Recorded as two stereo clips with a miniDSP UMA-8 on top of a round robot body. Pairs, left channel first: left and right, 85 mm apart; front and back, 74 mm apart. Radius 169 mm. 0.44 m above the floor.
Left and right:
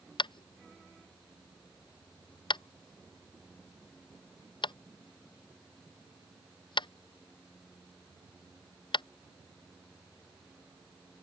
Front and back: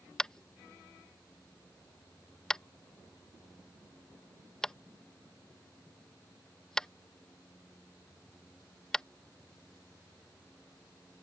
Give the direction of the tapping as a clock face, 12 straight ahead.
9 o'clock.